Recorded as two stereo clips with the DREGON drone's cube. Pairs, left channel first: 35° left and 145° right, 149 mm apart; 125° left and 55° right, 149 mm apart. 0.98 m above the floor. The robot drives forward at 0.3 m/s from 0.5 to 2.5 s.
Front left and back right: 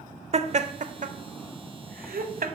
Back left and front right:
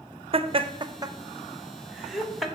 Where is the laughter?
105° right, 0.5 m; by 2.5 s 145° right, 0.9 m.